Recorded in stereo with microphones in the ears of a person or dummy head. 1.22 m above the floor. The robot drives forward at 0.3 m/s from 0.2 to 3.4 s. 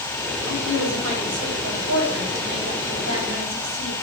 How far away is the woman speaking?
About 2.5 m.